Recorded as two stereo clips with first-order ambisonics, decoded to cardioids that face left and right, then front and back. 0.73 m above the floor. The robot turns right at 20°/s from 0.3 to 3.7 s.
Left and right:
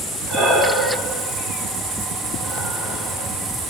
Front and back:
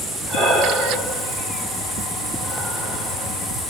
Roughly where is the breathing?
Behind.